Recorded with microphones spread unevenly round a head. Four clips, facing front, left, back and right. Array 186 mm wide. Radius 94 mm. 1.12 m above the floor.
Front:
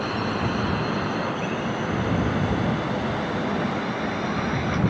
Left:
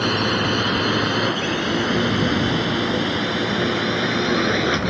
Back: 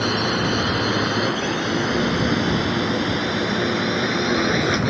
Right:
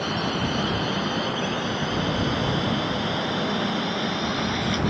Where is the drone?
130° left; by 4.9 s 135° left.